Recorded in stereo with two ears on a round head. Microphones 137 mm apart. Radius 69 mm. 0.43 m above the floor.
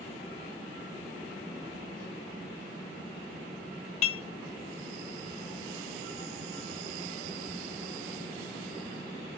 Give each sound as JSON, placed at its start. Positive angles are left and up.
{"t": 4.0, "sound": "dishes clattering", "side_deg": 40, "distance_m": 1.2}